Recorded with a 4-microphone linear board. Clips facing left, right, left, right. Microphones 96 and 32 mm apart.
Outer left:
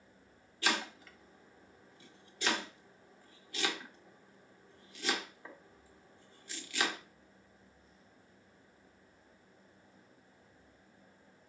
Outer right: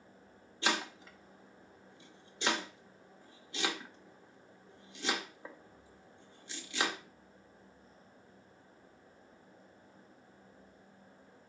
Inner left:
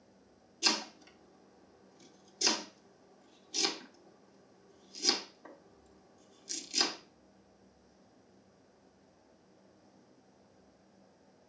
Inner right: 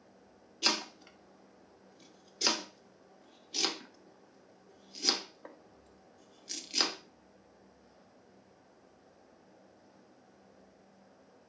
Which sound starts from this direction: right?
Chopping, at 0.6 s.